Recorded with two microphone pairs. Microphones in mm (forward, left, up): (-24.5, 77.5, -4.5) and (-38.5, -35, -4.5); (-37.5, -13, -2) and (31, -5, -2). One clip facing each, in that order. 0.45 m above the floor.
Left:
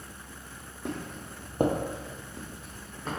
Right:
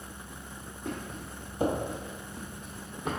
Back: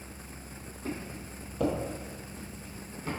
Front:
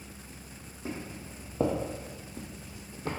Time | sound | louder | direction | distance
0.8 | footsteps | left 1 dB, back 1 dB | 85° left | 1.1 m